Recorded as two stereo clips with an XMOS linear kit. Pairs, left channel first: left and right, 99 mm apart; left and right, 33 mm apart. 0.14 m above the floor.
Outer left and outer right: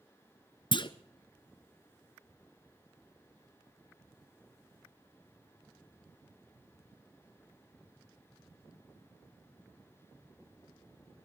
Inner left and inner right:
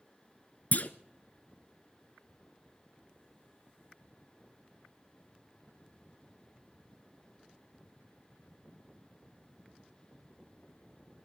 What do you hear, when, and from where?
0.7 s a clunk: 55° left (ahead or behind), 0.8 m